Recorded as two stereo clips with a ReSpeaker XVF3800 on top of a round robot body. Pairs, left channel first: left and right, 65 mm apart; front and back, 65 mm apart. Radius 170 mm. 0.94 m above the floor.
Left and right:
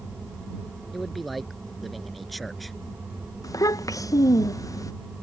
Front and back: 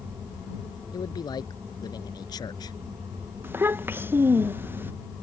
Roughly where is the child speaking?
Behind left.